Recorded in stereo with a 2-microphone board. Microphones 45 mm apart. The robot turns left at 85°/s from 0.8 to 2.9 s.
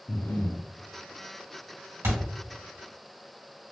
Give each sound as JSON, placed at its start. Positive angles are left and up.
{"t": 0.1, "sound": "breathing", "side_deg": 50, "distance_m": 0.5}
{"t": 2.0, "sound": "a thud", "side_deg": -75, "distance_m": 1.8}